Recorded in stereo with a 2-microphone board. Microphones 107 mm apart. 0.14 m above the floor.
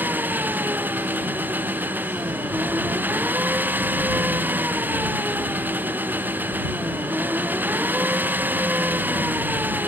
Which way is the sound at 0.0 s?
15° right (ahead or behind).